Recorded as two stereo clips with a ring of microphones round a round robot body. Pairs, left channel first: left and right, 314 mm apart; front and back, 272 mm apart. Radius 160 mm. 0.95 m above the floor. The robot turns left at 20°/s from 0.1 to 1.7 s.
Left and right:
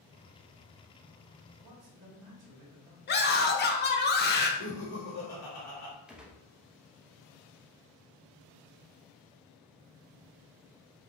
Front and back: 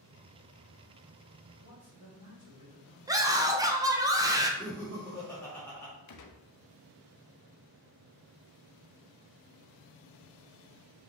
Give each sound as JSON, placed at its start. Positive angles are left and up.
{"t": 1.6, "sound": "a man speaking", "azimuth_deg": -100, "distance_m": 1.8}
{"t": 3.1, "sound": "a scream", "azimuth_deg": 110, "distance_m": 0.9}
{"t": 4.6, "sound": "laughter", "azimuth_deg": 80, "distance_m": 1.6}
{"t": 6.1, "sound": "a gunshot", "azimuth_deg": -5, "distance_m": 0.7}